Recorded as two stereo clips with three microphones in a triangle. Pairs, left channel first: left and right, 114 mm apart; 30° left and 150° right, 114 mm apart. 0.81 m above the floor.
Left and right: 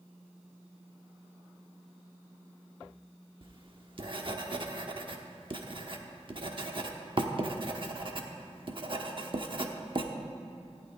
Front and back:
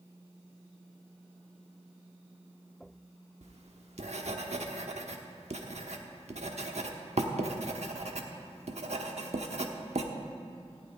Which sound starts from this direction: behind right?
Writing, at 3.4 s.